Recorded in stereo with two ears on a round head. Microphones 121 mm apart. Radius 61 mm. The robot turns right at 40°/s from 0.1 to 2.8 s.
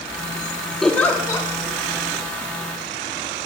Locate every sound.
0.8 s a giggle: 5° left (ahead or behind), 1.4 m; by 1.5 s 30° left (ahead or behind), 1.4 m